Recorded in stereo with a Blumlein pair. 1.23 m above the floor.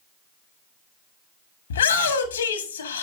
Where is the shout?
70° left, 1.6 m.